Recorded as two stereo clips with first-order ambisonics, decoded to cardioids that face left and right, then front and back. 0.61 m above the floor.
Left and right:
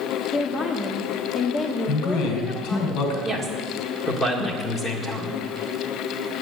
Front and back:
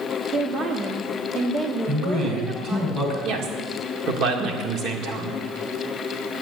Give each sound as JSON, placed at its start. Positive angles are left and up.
{"t": 0.3, "sound": "a woman speaking", "azimuth_deg": 140, "distance_m": 1.1}
{"t": 1.9, "sound": "a man speaking", "azimuth_deg": 120, "distance_m": 5.0}
{"t": 3.2, "sound": "a woman speaking", "azimuth_deg": 175, "distance_m": 2.0}